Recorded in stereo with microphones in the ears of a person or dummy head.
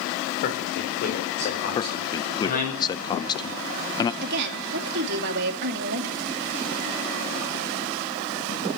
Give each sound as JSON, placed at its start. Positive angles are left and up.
{"t": 0.4, "sound": "a man speaking", "side_deg": 55, "distance_m": 5.5}
{"t": 1.8, "sound": "a man speaking", "side_deg": 20, "distance_m": 0.8}
{"t": 4.2, "sound": "a woman speaking", "side_deg": -60, "distance_m": 2.5}